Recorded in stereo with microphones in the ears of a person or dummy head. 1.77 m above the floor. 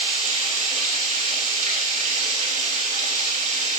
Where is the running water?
45° right (ahead or behind), 5 m.